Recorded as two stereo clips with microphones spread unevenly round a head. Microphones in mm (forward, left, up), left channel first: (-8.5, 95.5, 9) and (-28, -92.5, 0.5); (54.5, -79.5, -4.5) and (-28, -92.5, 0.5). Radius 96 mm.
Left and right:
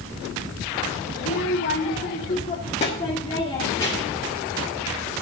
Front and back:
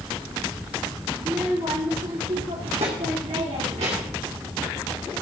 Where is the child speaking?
115° left, 1.5 m; by 4.3 s 155° left, 2.5 m.